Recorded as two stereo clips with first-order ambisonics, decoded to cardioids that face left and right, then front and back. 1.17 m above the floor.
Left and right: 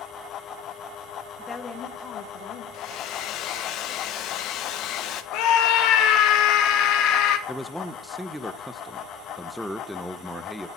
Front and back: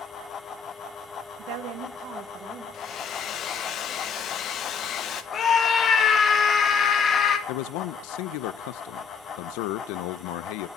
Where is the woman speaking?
Straight behind, 0.9 m; by 2.6 s 125° left, 2.0 m.